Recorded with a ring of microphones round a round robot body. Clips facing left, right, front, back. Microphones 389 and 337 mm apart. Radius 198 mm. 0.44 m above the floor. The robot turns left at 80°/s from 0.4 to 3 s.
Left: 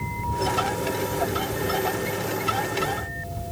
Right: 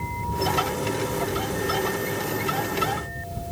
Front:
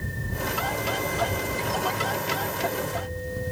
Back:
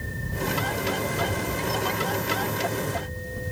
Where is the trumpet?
I don't hear a trumpet.